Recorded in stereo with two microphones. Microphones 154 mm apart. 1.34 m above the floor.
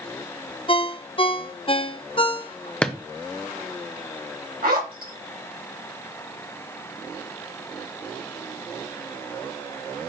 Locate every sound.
0.7 s a ringtone: 35° left (ahead or behind), 0.5 m
2.8 s a drawer: 5° left (ahead or behind), 0.7 m
4.6 s a zipper: 70° right (ahead or behind), 2 m